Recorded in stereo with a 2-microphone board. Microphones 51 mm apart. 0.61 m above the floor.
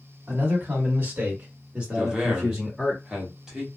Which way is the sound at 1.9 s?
15° right (ahead or behind).